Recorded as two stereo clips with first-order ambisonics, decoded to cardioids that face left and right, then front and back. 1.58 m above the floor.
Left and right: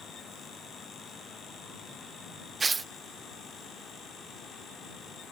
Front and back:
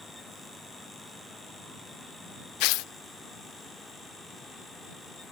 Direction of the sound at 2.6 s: 15° right.